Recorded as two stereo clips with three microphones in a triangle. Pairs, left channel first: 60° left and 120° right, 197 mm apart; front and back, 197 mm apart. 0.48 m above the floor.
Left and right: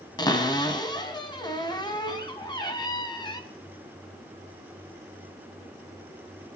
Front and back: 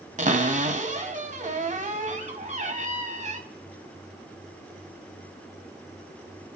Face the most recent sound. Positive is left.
turn(degrees=130)